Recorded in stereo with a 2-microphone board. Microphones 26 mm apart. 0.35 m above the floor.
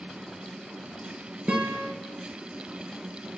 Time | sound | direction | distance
1.5 | a guitar | 50° right (ahead or behind) | 1.0 m